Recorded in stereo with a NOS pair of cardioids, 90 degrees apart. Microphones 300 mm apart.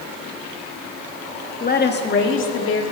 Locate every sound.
1.6 s a woman speaking: 30° left, 1.6 m; by 2.8 s 45° left, 2 m